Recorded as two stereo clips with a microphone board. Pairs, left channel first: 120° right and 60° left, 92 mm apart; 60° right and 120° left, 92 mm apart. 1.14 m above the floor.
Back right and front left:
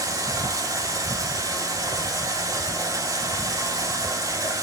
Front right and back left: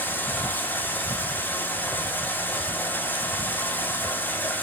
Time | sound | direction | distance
0.0 | running water | 10° left | 2 m